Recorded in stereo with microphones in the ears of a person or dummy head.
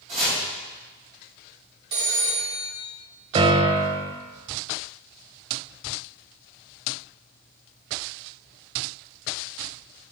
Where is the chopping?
40° right (ahead or behind), 3 m.